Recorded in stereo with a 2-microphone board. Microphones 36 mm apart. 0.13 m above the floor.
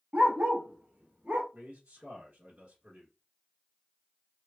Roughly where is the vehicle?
No vehicle in this recording.